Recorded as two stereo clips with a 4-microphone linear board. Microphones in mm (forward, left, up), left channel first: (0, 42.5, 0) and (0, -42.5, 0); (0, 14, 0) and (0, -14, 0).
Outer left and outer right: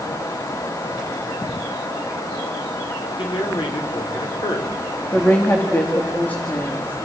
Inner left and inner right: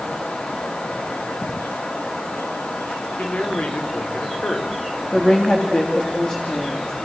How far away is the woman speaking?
About 3 m.